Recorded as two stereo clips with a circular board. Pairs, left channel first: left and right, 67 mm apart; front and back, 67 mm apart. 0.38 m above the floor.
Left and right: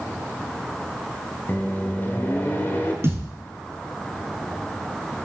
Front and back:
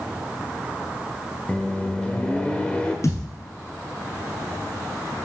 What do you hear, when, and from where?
1.5 s a microwave: 60° left, 1.1 m
3.0 s a thud: 40° right, 2.0 m